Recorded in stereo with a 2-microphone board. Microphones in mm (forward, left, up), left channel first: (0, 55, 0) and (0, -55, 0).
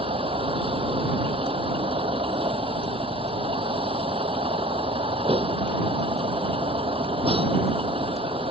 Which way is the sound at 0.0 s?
55° right (ahead or behind).